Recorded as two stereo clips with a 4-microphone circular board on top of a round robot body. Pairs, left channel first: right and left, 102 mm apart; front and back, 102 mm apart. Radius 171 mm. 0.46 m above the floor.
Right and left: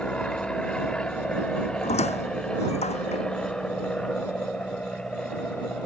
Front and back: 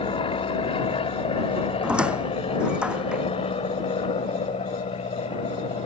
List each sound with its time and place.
0.0 s an aircraft: 10° right
1.8 s a squeak: 100° right